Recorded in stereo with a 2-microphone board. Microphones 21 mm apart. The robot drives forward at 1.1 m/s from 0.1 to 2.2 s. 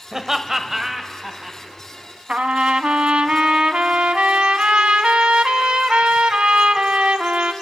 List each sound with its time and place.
0.1 s laughter: 20° right (ahead or behind), 1.0 m; by 1.6 s 10° right (ahead or behind), 2.0 m
2.3 s a trumpet: 70° right (ahead or behind), 0.7 m